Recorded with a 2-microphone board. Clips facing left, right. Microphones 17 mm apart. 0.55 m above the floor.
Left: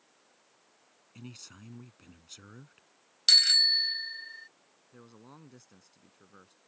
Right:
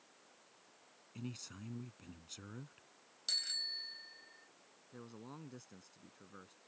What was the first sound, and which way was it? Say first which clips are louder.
A man speaking: even; 5° left (ahead or behind).